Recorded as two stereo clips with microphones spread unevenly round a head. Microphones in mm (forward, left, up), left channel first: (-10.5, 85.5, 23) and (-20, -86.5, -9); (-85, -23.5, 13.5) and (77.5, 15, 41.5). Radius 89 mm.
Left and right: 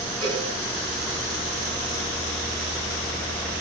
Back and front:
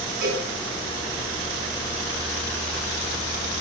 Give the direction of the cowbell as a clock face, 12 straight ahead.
1 o'clock.